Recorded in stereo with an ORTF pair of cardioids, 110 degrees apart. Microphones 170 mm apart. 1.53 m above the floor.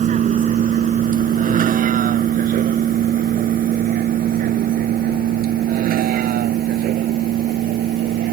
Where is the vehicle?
50° right; by 8.3 s 65° right.